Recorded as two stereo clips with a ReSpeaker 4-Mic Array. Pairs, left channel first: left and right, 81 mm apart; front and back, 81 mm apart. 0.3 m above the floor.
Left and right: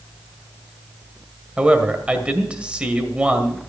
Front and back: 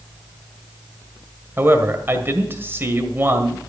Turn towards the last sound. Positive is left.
turn(degrees=-155)